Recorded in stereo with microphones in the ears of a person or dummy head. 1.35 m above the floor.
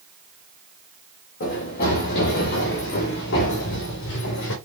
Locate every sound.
1.4 s running footsteps: 45° left (ahead or behind), 5 m; by 4.5 s 65° left (ahead or behind), 5 m